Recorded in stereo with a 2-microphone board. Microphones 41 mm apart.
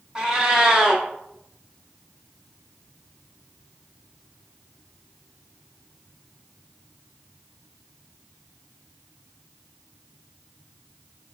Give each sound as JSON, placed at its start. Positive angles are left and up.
{"t": 0.1, "sound": "a cat meowing", "side_deg": -20, "distance_m": 1.2}